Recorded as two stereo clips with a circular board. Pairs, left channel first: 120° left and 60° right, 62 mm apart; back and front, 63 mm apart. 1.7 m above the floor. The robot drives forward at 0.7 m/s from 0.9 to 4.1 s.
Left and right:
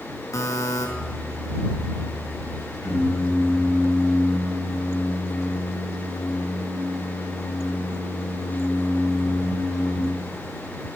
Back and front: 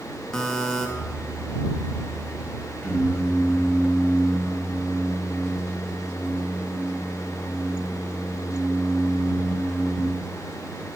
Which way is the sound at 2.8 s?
120° left.